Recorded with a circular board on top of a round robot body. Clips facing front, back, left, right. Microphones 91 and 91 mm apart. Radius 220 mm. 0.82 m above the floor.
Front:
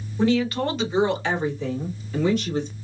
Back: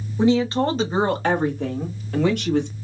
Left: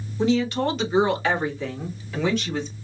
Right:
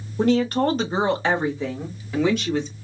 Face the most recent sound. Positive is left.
turn(degrees=-175)